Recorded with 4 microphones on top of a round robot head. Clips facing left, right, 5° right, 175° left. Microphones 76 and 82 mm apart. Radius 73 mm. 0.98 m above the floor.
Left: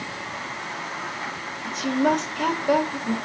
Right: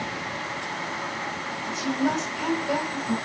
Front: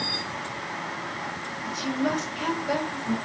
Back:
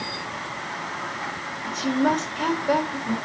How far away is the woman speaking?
About 1.9 m.